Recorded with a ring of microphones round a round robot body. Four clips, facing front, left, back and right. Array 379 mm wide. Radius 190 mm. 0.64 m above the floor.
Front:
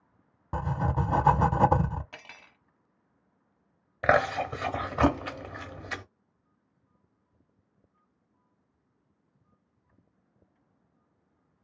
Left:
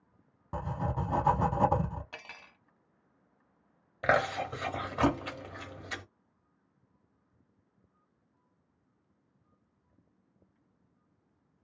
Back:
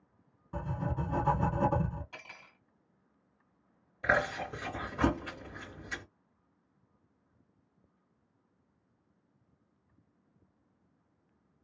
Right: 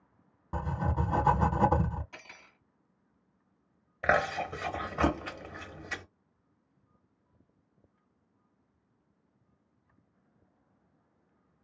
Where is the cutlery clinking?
50° left, 1.7 m.